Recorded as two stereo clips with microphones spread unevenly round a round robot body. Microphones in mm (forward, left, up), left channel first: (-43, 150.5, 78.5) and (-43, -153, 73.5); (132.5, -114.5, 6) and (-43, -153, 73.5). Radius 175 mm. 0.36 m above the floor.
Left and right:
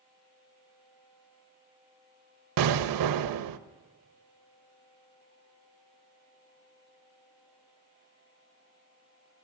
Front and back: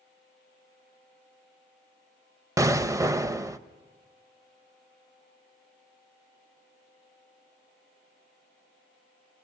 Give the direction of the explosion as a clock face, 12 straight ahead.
3 o'clock.